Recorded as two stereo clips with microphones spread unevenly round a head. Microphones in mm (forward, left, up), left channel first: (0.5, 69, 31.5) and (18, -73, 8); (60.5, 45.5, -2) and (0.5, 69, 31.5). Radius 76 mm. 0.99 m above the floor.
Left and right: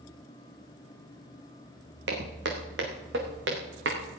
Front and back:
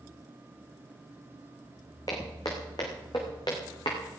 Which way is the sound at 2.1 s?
95° right.